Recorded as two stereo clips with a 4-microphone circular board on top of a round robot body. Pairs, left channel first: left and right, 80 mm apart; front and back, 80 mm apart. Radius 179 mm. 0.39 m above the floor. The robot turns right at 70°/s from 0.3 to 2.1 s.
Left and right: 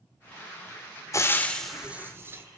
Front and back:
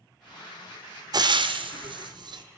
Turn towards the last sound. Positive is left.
turn(degrees=-150)